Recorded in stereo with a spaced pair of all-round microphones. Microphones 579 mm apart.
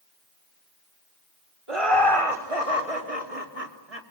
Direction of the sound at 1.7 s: 60° right (ahead or behind).